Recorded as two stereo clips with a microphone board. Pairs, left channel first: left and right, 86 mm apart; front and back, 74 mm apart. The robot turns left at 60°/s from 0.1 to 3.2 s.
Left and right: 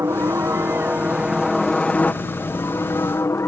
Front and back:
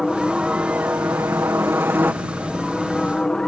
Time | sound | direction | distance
0.0 | a helicopter | 95° right | ?